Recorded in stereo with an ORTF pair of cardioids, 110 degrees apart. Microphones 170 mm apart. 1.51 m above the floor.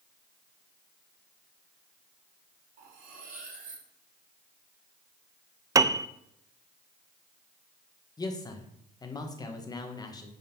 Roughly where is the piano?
Ahead.